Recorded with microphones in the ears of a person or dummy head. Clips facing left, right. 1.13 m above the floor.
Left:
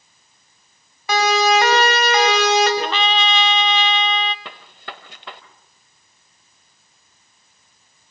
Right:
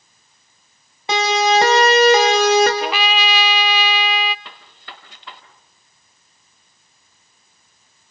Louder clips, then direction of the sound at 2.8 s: Even; 5° right (ahead or behind).